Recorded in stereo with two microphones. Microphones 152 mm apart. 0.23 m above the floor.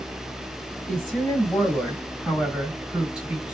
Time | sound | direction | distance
0.9 | a woman speaking | centre (ahead or behind) | 1.7 m